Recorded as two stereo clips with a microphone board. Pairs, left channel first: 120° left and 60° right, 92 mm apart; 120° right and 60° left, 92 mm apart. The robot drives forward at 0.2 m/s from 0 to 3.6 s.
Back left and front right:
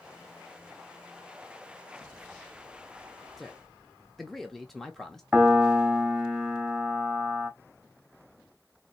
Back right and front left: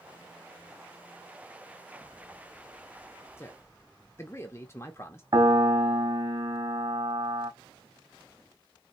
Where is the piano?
20° left, 0.8 m.